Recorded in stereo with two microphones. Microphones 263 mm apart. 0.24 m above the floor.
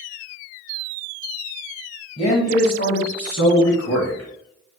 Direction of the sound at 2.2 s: 20° left (ahead or behind).